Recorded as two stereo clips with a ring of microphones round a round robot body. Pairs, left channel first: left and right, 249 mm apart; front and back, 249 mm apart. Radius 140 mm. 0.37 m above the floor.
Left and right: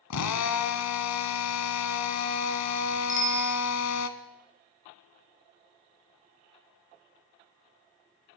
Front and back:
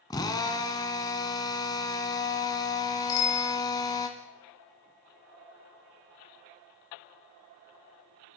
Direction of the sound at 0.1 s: 75° left.